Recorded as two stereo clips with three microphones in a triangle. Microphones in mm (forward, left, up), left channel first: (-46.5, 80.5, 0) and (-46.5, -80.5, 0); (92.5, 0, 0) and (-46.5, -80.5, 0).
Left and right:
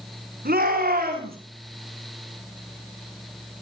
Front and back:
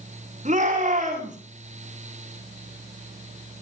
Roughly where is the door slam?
No door slam in this recording.